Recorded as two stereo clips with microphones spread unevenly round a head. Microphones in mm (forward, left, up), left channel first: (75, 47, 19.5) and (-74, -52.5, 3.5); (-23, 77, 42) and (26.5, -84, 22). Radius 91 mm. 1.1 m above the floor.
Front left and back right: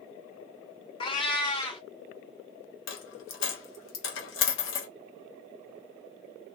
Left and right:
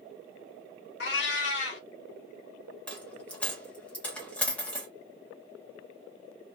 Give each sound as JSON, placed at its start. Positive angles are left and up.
{"t": 1.0, "sound": "a cat meowing", "azimuth_deg": 95, "distance_m": 0.8}
{"t": 2.9, "sound": "a dropped coin", "azimuth_deg": 25, "distance_m": 0.8}